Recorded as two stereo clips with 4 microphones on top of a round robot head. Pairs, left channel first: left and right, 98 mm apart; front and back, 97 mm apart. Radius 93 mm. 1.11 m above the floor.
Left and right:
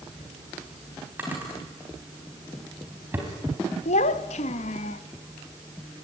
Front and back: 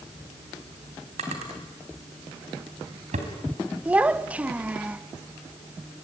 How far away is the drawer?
About 3.5 m.